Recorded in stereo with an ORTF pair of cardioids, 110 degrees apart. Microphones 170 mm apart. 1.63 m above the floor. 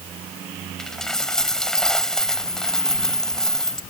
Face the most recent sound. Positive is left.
turn(degrees=5)